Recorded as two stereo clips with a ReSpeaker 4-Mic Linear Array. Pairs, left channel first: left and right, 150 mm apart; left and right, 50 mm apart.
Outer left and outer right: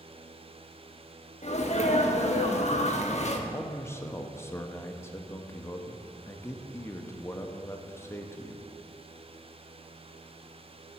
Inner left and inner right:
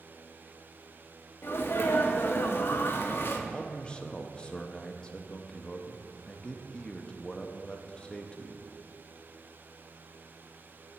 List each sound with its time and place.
1.4 s a sneeze: 50° left (ahead or behind), 1.0 m
3.5 s a man speaking: 20° left (ahead or behind), 0.6 m